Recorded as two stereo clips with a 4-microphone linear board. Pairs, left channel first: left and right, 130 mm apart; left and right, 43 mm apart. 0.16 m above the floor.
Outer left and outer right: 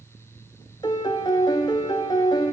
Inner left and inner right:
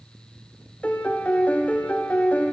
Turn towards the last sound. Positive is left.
turn(degrees=30)  # may be behind; listen again after turning